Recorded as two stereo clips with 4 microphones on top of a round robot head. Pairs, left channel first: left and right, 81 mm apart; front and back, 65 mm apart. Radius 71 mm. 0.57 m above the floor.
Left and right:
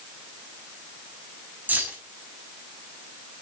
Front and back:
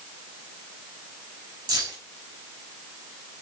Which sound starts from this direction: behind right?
Keys jangling, at 1.7 s.